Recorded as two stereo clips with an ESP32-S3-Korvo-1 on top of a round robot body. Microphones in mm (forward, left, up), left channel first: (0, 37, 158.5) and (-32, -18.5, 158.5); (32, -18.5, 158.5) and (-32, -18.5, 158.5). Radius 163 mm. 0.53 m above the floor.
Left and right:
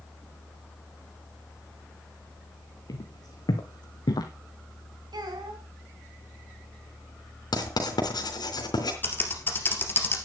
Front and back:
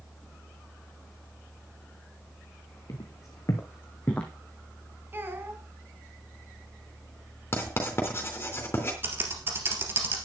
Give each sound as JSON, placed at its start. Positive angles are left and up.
{"t": 2.9, "sound": "footsteps", "azimuth_deg": 35, "distance_m": 3.0}
{"t": 5.1, "sound": "a child speaking", "azimuth_deg": -120, "distance_m": 3.5}
{"t": 7.5, "sound": "writing", "azimuth_deg": 55, "distance_m": 3.5}
{"t": 9.0, "sound": "typing on a keyboard", "azimuth_deg": 120, "distance_m": 2.5}